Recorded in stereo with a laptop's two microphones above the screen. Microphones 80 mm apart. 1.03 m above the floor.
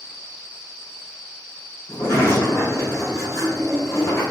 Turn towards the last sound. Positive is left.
turn(degrees=45)  # may be behind; listen again after turning